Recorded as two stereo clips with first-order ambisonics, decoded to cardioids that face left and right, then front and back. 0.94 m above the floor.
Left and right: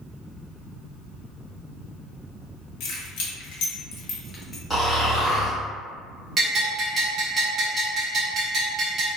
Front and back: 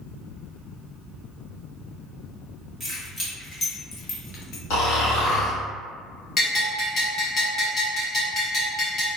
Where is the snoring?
5° left, 1.3 m.